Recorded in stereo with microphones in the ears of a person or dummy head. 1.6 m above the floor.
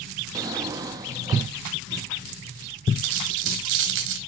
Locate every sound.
0.3 s a drawer: 20° right (ahead or behind), 1.6 m
3.0 s a dropped coin: 65° right (ahead or behind), 3 m